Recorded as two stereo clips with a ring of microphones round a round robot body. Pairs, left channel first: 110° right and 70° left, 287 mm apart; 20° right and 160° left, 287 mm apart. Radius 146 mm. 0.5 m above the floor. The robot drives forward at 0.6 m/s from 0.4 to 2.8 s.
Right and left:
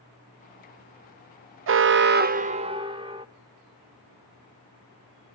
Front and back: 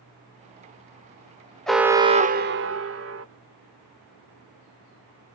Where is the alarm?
65° left, 0.8 m; by 3.2 s 135° left, 0.9 m.